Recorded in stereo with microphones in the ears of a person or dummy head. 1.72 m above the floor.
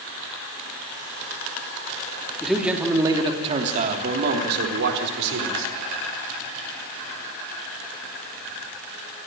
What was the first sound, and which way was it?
A man speaking, centre (ahead or behind).